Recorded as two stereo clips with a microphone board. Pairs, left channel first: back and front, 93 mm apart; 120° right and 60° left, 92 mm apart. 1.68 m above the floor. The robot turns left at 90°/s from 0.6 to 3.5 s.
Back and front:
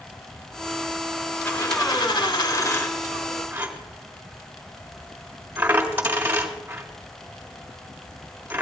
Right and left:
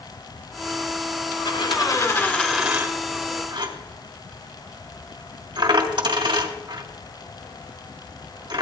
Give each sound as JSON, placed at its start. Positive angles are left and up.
{"t": 1.4, "sound": "a dropped coin", "azimuth_deg": -110, "distance_m": 2.5}